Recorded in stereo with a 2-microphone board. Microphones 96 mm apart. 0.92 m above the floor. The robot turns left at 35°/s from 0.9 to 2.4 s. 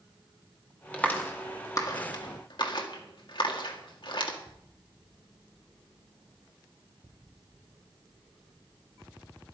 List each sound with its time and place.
0.9 s a clap: 15° left (ahead or behind), 1.8 m; by 4.4 s 60° left (ahead or behind), 1.8 m